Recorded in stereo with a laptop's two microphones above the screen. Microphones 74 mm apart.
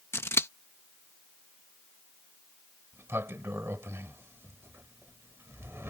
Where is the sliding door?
35° right (ahead or behind).